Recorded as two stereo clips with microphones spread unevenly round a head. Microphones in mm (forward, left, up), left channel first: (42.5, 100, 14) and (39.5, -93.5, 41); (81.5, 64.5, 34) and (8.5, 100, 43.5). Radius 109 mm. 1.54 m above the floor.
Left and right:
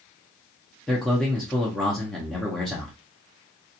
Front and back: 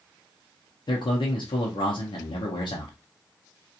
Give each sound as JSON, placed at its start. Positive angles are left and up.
{"t": 0.9, "sound": "a man speaking", "azimuth_deg": 0, "distance_m": 0.7}